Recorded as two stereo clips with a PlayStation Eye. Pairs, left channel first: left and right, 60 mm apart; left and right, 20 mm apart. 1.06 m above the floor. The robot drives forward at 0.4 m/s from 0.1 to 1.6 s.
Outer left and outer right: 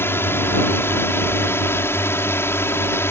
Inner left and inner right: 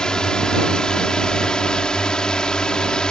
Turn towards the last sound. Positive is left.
turn(degrees=45)  # may be behind; listen again after turning